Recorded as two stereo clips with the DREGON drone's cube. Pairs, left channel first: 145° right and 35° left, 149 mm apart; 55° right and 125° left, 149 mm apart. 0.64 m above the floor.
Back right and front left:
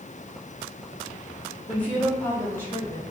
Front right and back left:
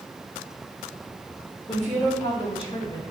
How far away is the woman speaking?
About 1.7 m.